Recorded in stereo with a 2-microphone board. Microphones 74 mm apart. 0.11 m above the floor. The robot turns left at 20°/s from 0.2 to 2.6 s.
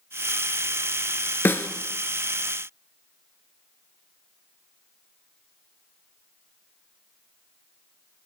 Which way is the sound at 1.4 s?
30° left (ahead or behind).